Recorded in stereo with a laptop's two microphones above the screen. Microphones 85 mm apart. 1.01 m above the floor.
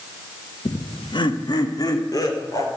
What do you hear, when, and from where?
0.7 s laughter: 70° left (ahead or behind), 0.8 m; by 2.7 s 45° left (ahead or behind), 3.5 m